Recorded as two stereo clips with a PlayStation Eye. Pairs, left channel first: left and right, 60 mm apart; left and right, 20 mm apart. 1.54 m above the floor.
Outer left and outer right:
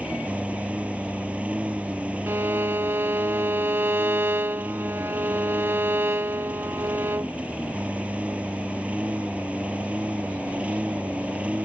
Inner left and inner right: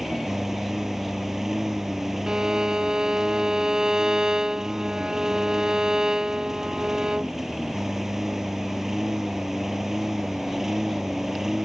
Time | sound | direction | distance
0.0 | a lawn mower | 20° right (ahead or behind) | ?
2.3 | a violin | 40° right (ahead or behind) | ?